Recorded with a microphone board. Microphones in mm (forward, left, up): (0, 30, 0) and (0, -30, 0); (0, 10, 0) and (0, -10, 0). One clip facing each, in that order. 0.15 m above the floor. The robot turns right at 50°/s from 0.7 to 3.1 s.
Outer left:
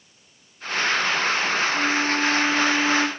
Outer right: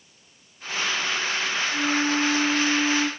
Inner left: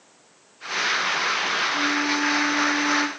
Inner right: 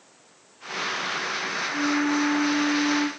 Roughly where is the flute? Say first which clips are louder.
Outer left 1 dB, inner left 1 dB; ahead.